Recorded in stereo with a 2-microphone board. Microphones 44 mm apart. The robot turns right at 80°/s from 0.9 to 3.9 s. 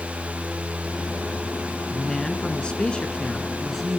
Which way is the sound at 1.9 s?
10° left (ahead or behind).